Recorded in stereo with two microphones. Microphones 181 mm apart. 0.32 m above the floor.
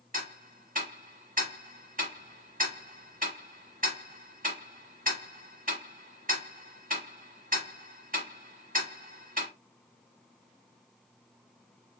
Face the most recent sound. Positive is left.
turn(degrees=-50)  # may be behind; listen again after turning